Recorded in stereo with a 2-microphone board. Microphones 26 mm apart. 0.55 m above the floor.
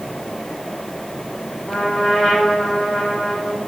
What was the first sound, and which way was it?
A trumpet, 30° left (ahead or behind).